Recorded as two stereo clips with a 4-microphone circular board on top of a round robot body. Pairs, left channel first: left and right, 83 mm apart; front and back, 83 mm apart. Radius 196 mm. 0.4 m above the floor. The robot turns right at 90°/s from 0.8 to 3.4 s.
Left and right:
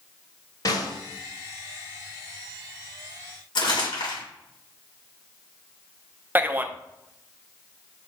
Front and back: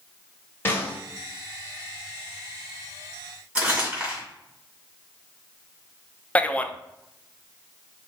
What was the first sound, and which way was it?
A snare drum, 60° left.